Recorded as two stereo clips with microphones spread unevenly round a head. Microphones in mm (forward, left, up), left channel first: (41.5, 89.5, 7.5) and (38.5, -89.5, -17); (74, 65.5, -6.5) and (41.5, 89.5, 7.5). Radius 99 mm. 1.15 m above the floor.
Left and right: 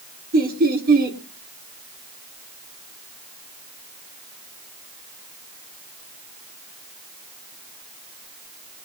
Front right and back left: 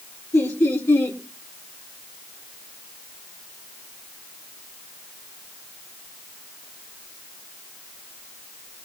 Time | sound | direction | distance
0.3 | laughter | 55° right | 3 m